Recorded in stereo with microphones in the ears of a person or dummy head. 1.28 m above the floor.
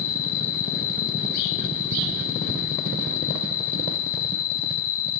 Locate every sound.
0.0 s an insect: 60° left (ahead or behind), 1.5 m